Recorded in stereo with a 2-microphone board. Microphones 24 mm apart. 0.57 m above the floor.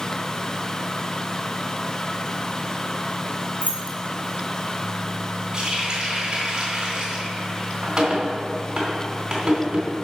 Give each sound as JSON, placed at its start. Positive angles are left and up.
{"t": 3.6, "sound": "keys jangling", "side_deg": -60, "distance_m": 2.5}
{"t": 5.5, "sound": "a running tap", "side_deg": -30, "distance_m": 3.0}